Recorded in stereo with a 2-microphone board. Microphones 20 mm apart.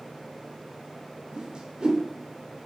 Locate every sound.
1.3 s a whoosh: 35° right (ahead or behind), 0.6 m